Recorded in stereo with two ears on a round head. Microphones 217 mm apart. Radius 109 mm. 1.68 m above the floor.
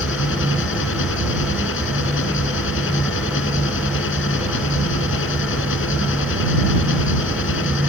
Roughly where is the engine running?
Left.